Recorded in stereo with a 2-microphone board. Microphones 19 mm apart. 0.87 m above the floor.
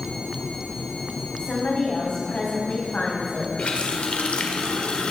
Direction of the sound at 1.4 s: 75° left (ahead or behind).